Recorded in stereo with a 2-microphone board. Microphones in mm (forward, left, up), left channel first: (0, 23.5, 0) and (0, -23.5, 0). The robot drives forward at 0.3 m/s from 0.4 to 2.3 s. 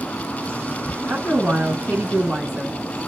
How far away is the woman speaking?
About 1.7 m.